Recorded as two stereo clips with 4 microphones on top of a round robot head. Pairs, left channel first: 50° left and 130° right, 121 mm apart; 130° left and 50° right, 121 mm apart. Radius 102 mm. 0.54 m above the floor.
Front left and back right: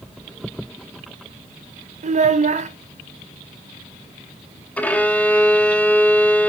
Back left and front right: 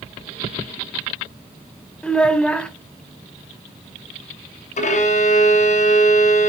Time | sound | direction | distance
2.0 | a child speaking | 145° right | 1.7 m
4.8 | a violin | 125° left | 2.5 m